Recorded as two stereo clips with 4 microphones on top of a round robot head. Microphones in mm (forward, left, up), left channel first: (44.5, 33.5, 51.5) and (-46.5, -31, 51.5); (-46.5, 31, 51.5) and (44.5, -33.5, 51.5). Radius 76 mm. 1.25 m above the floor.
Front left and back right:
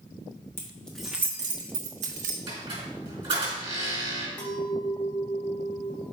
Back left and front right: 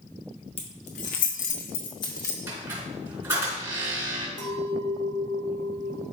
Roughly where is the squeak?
Right.